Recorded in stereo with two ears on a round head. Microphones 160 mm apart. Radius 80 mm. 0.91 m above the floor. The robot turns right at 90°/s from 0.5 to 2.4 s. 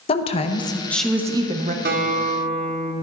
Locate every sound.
0.1 s a woman speaking: 130° left, 0.8 m; by 1.8 s 115° right, 0.8 m
1.9 s a guitar: 90° right, 1.3 m; by 2.9 s 40° right, 1.3 m